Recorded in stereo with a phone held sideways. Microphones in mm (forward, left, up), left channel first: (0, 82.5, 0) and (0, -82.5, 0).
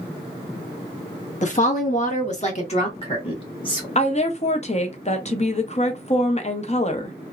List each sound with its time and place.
1.4 s a woman speaking: 45° left (ahead or behind), 0.9 m; by 3.9 s 30° left (ahead or behind), 1.6 m
4.0 s a woman speaking: 40° left (ahead or behind), 0.6 m